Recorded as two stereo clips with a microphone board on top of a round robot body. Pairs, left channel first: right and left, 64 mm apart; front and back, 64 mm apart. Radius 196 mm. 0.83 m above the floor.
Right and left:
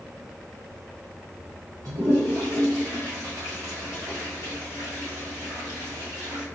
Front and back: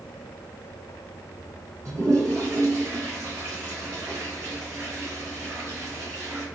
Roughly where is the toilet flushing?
Behind left.